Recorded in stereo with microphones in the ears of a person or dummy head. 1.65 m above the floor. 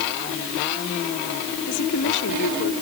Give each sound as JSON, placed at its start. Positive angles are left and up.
{"t": 1.7, "sound": "a woman speaking", "side_deg": 60}